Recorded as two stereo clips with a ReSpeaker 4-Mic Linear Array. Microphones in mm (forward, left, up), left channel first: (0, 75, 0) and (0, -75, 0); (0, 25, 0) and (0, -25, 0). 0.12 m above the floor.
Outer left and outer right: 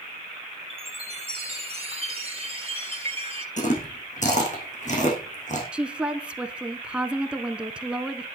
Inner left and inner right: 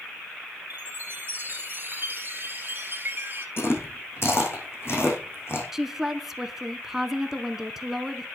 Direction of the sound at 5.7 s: 10° right (ahead or behind).